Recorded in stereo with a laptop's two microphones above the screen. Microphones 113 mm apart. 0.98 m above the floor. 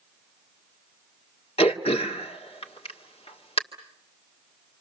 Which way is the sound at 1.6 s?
65° left (ahead or behind).